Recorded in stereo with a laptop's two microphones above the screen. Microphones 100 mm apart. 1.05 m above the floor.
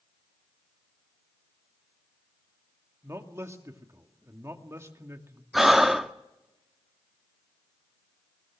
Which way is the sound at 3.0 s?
25° right (ahead or behind).